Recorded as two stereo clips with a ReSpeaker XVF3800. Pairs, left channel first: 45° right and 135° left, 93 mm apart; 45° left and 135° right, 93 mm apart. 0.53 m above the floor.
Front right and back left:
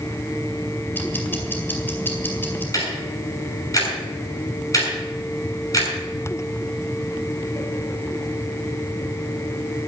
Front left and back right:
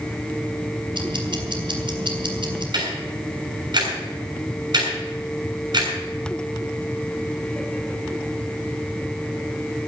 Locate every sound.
0.9 s ticking: 110° right, 2.5 m
2.7 s ticking: 95° right, 7 m